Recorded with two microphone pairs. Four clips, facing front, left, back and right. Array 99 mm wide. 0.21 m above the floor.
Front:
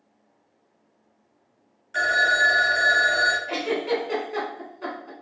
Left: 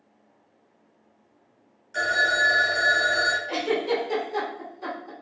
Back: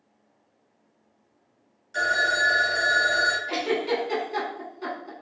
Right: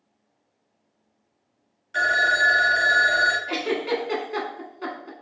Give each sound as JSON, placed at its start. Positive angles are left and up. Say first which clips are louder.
{"t": 1.9, "sound": "a phone ringing", "louder": "right 2 dB, front 3 dB", "azimuth_deg": -50, "distance_m": 0.6}
{"t": 3.5, "sound": "a giggle", "louder": "even, even", "azimuth_deg": -80, "distance_m": 0.9}